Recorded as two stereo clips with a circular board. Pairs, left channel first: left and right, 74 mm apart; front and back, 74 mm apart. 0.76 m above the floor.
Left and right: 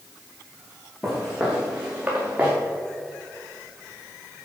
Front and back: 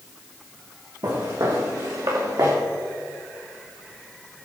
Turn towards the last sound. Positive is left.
turn(degrees=-160)